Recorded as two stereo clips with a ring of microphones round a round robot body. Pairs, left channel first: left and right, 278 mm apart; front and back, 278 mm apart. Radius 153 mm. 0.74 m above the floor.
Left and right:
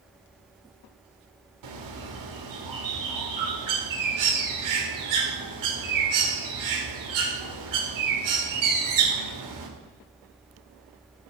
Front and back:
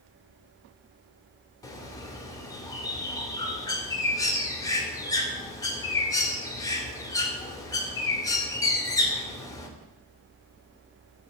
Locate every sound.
1.6 s a bird: 80° right, 2 m